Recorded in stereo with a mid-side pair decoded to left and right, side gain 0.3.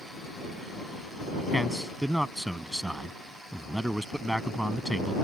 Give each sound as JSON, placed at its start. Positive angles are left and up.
{"t": 1.5, "sound": "a man speaking", "azimuth_deg": -10}